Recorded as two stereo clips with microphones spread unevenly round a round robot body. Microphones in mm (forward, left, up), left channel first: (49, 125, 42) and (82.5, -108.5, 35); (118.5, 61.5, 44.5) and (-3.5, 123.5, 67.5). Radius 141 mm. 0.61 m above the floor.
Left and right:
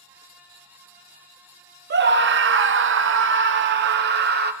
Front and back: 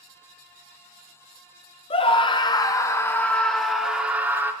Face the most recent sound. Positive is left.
turn(degrees=-125)